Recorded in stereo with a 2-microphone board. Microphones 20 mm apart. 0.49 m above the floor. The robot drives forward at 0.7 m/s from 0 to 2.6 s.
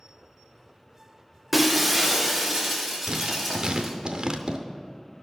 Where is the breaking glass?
5° left (ahead or behind), 0.6 m; by 3.9 s centre (ahead or behind), 1.4 m.